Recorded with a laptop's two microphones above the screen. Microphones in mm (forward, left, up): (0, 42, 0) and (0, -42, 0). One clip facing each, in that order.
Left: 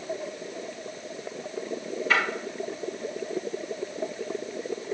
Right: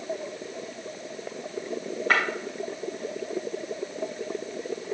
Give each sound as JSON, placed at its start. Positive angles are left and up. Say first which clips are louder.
{"t": 2.1, "sound": "breaking glass", "louder": "right 1 dB", "side_deg": -55, "distance_m": 3.5}